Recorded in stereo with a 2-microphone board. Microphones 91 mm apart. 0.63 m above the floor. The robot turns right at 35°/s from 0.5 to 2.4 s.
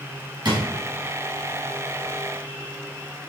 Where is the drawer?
55° right (ahead or behind), 2.5 m.